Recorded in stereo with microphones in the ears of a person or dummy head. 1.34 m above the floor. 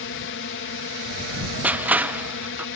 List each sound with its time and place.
0.0 s a drone: 55° left (ahead or behind)
1.6 s crushing: 10° right (ahead or behind)